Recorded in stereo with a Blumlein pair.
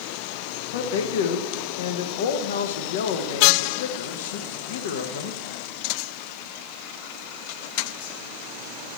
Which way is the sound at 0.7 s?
55° left.